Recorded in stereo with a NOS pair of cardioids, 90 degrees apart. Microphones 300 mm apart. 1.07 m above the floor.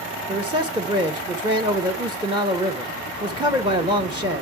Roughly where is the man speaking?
Ahead.